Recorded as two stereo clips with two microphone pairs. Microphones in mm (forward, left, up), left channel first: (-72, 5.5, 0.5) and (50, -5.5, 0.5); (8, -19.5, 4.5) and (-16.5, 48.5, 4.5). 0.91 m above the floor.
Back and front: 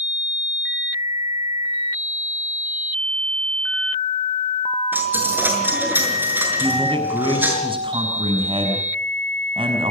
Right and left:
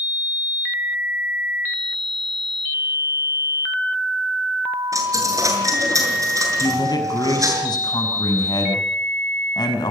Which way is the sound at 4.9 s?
70° left.